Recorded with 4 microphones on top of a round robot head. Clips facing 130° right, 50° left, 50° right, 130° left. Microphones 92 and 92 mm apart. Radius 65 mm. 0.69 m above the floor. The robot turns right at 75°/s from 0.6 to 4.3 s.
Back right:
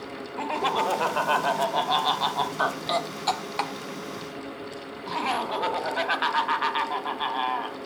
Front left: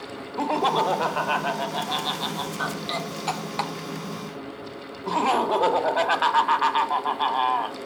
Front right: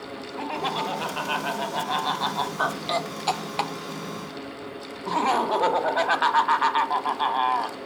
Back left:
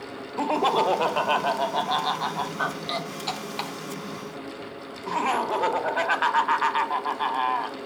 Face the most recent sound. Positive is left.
turn(degrees=20)